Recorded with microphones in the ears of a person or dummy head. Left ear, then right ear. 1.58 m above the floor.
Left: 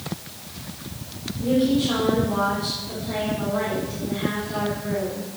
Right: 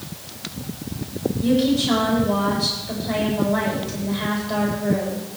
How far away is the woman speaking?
About 6 m.